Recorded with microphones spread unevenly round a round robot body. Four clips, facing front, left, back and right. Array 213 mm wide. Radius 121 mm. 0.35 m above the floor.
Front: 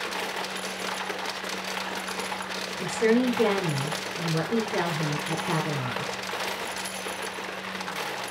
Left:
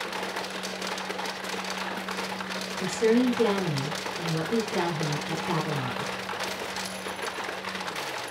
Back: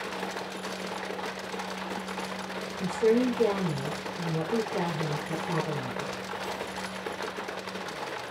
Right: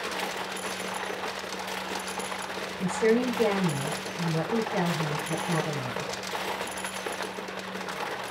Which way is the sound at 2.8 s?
20° left.